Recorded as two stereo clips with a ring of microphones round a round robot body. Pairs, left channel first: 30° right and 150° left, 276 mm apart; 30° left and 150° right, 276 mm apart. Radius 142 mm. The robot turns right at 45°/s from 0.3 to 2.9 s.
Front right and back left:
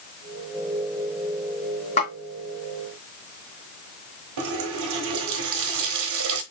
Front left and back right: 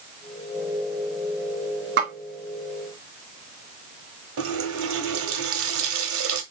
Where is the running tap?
170° left, 1.4 m.